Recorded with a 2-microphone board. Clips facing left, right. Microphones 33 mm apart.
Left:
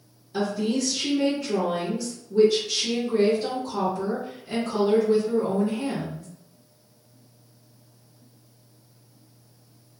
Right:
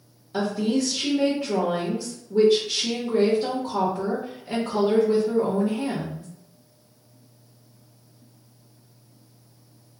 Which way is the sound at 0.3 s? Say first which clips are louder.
Right 2 dB; 30° right (ahead or behind).